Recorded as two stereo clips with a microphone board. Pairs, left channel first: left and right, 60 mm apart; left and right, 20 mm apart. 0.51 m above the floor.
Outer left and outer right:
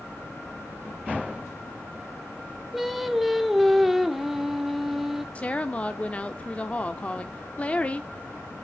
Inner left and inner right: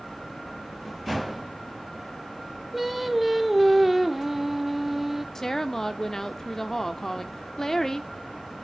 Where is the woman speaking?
25° left (ahead or behind), 0.9 m.